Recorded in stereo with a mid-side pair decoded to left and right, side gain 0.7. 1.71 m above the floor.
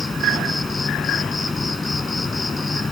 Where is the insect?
20° left.